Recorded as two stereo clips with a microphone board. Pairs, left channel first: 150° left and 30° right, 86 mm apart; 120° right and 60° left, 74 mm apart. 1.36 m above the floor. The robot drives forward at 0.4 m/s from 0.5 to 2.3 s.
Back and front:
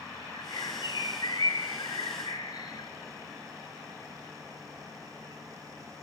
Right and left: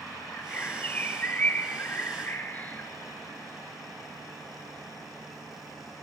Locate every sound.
0.3 s a bird: 170° left, 1.6 m; by 2.9 s 175° left, 2.5 m